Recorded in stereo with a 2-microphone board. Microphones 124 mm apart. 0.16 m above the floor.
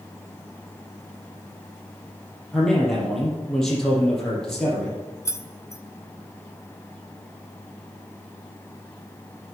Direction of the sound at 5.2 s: 25° left (ahead or behind).